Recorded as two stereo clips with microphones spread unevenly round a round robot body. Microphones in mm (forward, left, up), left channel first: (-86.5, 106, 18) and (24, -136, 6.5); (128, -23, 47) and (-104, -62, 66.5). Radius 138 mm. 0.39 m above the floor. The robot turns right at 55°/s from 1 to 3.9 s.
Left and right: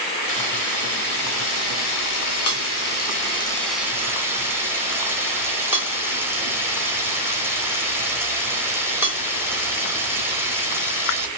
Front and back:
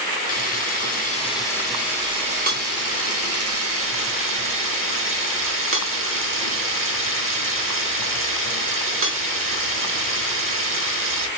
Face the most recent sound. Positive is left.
turn(degrees=-145)